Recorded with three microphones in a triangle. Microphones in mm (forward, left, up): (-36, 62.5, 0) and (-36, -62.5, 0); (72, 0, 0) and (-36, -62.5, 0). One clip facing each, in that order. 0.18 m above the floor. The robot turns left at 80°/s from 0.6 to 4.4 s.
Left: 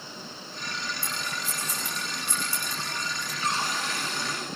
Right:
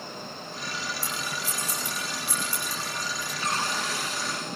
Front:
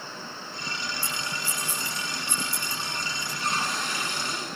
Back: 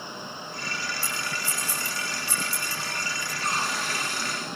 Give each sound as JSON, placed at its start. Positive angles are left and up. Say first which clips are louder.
{"t": 1.0, "sound": "scissors", "louder": "right 1 dB, back 1 dB", "azimuth_deg": -45, "distance_m": 6.5}
{"t": 3.4, "sound": "a cupboard door", "louder": "even, even", "azimuth_deg": 165, "distance_m": 9.5}